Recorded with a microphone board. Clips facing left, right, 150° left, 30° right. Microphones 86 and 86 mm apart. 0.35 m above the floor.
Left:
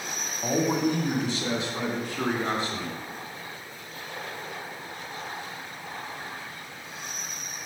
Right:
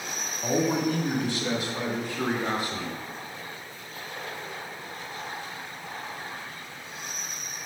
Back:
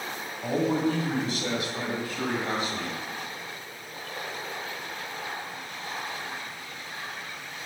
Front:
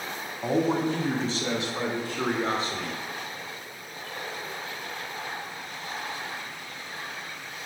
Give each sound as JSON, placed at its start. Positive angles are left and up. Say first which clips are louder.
{"t": 0.4, "sound": "a man speaking", "louder": "even, front 1 dB", "azimuth_deg": 25, "distance_m": 1.9}